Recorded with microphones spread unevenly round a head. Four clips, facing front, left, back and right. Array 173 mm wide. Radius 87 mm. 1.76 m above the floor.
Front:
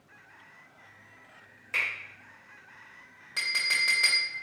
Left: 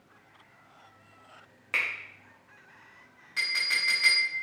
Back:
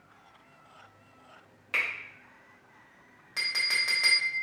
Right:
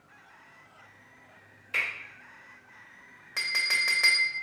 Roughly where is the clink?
Right.